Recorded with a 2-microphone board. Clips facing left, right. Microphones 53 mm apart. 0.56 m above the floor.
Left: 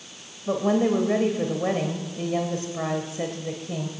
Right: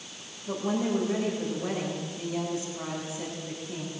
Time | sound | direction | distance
0.5 | a woman speaking | 50° left (ahead or behind) | 3 m